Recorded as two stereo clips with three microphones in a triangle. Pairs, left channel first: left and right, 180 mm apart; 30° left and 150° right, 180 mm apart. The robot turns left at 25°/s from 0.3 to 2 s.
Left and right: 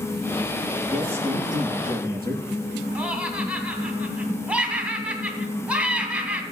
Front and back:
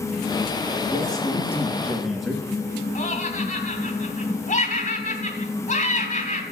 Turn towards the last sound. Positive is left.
turn(degrees=-10)